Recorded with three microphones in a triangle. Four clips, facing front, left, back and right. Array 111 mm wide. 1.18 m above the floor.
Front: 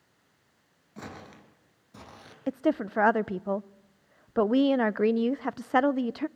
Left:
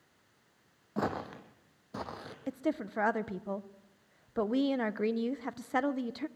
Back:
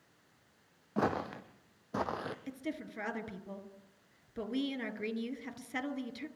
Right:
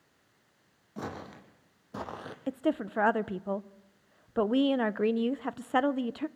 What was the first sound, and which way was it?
Footsteps, 145° left.